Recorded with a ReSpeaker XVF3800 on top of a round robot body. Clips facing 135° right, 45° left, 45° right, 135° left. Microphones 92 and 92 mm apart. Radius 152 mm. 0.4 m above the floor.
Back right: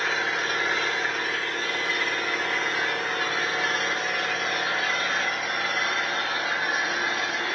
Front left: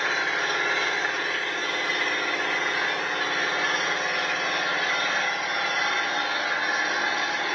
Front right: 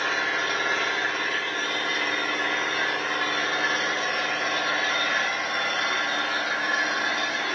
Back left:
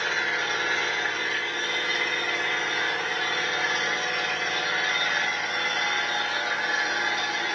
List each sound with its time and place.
0.0 s an engine running: 20° right, 3.5 m